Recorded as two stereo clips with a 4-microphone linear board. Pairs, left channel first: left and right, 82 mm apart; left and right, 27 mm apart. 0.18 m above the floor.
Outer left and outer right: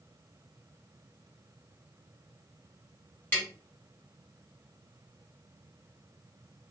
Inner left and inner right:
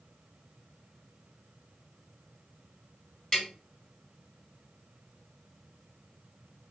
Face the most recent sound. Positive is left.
turn(degrees=25)  # may be behind; listen again after turning